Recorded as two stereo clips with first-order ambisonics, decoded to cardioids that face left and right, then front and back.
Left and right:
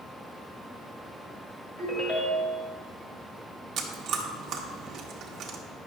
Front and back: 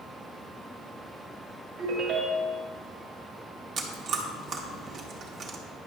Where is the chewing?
130° right, 0.9 m.